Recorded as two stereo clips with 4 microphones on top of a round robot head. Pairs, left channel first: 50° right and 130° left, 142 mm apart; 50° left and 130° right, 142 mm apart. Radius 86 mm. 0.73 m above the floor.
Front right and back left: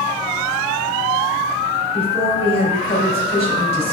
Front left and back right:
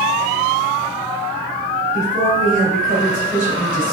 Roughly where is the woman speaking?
Right.